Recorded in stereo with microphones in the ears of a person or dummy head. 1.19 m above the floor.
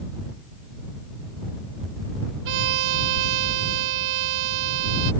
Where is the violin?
70° right (ahead or behind).